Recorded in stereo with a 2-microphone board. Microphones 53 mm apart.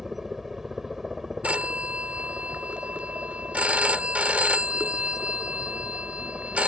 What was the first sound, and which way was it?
A helicopter, 5° right (ahead or behind).